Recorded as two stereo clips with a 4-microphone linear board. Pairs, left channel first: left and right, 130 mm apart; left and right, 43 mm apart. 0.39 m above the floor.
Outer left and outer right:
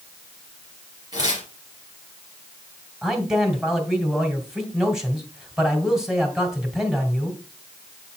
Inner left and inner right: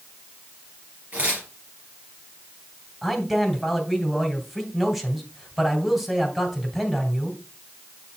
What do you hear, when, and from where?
1.1 s tearing paper: 35° right (ahead or behind), 4 m
3.0 s a man speaking: 5° right (ahead or behind), 1.9 m